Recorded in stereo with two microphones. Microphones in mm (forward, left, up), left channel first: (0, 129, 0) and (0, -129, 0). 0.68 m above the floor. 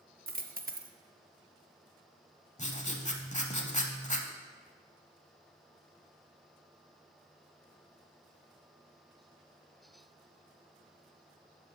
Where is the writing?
25° left (ahead or behind), 0.8 m.